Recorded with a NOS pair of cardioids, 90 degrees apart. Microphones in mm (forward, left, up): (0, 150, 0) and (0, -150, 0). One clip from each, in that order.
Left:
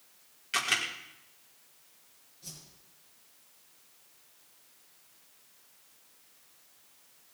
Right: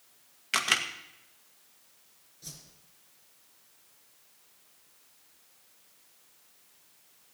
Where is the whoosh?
40° right, 5.5 m.